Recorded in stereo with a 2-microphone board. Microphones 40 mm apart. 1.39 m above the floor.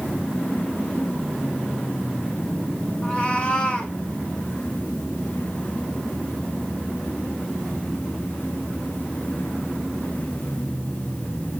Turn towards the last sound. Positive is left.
turn(degrees=30)  # may be behind; listen again after turning